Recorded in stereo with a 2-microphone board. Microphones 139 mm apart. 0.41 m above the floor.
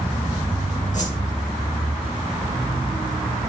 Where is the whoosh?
60° left (ahead or behind), 4 m.